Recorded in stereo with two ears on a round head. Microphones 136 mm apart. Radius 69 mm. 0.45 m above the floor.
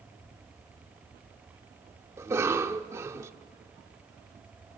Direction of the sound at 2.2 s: 20° right (ahead or behind).